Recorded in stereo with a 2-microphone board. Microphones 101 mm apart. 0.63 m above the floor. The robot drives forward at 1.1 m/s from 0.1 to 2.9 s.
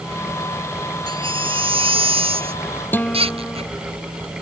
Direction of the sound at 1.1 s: 55° right (ahead or behind).